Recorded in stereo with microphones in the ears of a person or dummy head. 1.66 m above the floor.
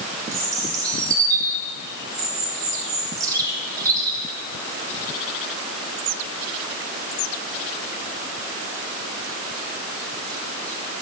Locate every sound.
0.3 s a bird: 20° right (ahead or behind), 3 m